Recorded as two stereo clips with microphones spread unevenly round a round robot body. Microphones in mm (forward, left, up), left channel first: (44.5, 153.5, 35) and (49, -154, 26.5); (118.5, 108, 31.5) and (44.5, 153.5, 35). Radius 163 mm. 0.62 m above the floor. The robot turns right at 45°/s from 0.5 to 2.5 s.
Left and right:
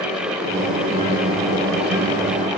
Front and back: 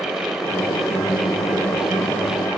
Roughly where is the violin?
No violin in this recording.